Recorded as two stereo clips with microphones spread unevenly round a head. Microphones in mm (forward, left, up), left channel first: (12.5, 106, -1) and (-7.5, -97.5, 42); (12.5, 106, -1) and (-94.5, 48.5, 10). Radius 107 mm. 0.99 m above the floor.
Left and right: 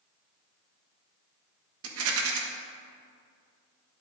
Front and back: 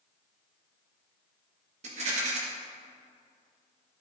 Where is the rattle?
110° right, 1.4 m.